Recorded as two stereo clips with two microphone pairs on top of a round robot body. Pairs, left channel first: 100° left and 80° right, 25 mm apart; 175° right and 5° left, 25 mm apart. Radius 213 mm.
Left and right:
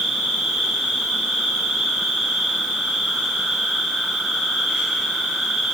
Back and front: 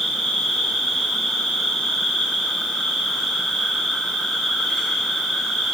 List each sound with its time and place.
0.0 s an insect: 105° right, 1.2 m